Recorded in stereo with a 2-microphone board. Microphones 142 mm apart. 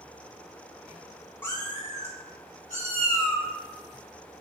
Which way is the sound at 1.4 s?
15° left (ahead or behind).